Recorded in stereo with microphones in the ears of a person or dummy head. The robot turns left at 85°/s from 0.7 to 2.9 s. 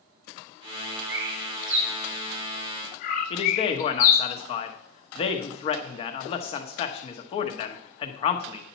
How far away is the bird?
About 1.0 m.